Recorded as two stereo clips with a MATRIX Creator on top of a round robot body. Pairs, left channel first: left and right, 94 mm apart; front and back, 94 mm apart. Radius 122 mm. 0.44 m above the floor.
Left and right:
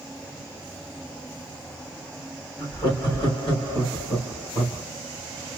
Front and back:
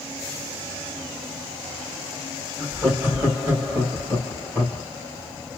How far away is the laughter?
About 3 m.